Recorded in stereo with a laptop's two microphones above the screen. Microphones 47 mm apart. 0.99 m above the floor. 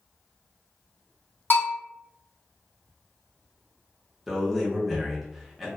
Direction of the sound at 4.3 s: 5° right (ahead or behind).